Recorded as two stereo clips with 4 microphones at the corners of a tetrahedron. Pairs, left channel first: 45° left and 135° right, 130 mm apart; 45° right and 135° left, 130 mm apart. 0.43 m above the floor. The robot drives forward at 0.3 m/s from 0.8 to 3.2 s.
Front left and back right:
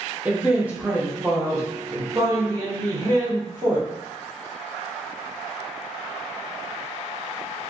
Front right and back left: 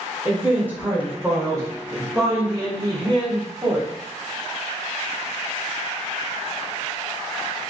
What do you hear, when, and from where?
0.2 s a man speaking: 175° left, 0.7 m; by 3.9 s straight behind, 1.2 m